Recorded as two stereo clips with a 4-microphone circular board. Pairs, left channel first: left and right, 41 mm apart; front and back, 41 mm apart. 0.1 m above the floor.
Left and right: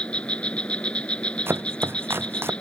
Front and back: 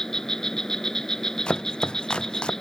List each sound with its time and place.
0.0 s an insect: 70° left
1.5 s chopping: 65° right